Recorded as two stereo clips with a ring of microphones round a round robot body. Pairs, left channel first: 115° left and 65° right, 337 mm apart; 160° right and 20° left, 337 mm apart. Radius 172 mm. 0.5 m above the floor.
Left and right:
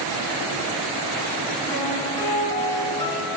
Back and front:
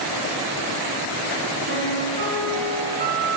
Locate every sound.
1.7 s a piano: 35° left, 4 m